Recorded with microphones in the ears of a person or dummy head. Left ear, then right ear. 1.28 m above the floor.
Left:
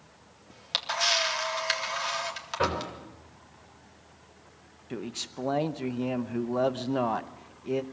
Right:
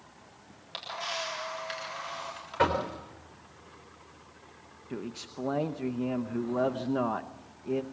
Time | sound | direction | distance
0.5 | a camera shutter | 50° left (ahead or behind) | 3.5 m
2.6 | knocking | 25° right (ahead or behind) | 4 m
4.9 | a man speaking | 15° left (ahead or behind) | 0.8 m